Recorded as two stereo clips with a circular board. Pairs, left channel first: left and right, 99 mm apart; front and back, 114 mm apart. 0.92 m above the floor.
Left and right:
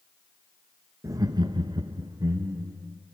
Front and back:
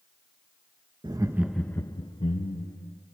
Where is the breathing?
I don't hear breathing.